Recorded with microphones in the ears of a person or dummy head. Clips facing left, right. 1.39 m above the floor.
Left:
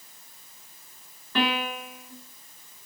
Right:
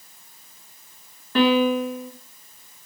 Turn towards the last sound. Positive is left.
turn(degrees=-40)  # may be behind; listen again after turning